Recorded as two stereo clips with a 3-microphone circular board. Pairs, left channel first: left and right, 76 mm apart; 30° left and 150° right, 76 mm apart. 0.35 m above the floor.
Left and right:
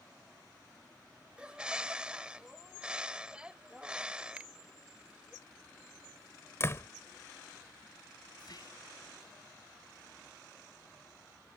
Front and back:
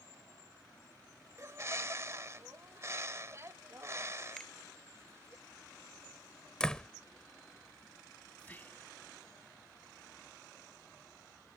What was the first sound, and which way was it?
A bird, 160° right.